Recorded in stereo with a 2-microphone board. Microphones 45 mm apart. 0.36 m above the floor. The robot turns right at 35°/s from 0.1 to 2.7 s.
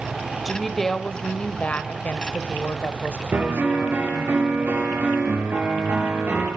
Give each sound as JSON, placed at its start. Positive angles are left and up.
{"t": 0.5, "sound": "a woman speaking", "azimuth_deg": 0, "distance_m": 1.3}
{"t": 3.3, "sound": "a piano", "side_deg": -45, "distance_m": 5.5}